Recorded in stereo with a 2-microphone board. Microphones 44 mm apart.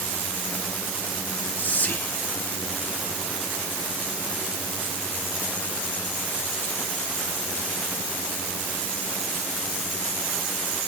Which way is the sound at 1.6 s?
50° left (ahead or behind).